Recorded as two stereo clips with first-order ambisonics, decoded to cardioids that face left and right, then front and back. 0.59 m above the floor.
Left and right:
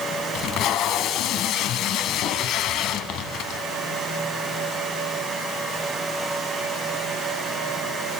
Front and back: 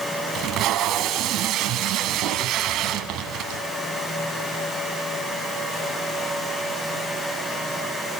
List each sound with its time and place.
0.3 s tape being pulled: 135° left, 1.4 m